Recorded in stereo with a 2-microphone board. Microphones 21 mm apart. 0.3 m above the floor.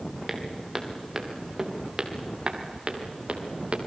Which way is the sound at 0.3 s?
10° right (ahead or behind).